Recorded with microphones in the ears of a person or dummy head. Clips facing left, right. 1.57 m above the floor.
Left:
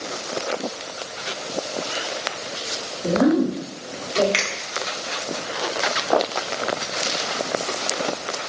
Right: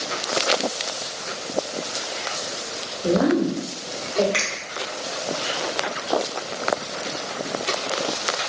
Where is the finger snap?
40° left (ahead or behind), 1.7 m.